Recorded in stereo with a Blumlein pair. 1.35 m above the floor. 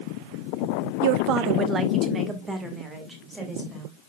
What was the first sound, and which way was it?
A woman speaking, 55° right.